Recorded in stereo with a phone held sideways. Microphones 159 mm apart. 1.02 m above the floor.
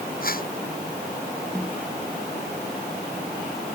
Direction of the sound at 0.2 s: 60° left (ahead or behind).